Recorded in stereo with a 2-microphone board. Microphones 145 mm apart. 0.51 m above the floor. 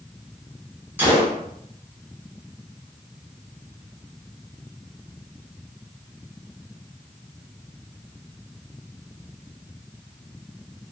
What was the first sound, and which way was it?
A gunshot, 15° right (ahead or behind).